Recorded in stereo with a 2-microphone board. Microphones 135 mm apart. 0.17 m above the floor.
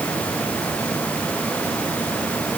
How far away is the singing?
No singing in this recording.